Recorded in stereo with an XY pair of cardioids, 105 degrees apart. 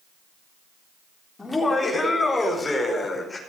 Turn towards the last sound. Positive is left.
turn(degrees=20)